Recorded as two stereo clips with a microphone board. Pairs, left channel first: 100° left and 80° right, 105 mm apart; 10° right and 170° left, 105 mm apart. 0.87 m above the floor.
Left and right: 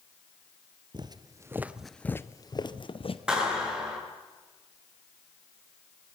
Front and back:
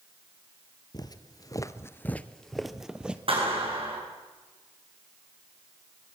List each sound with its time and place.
0.9 s footsteps: 50° right, 1.3 m; by 3.2 s 90° left, 1.6 m
3.3 s a clap: 160° right, 8.5 m